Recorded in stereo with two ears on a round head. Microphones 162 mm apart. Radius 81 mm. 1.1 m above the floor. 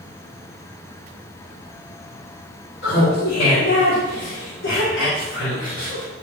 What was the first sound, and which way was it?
Laughter, 70° left (ahead or behind).